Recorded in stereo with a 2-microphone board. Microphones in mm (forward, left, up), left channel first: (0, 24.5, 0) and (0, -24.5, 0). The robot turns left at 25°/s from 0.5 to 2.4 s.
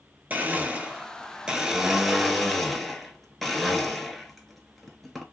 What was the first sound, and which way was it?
A blender, 135° right.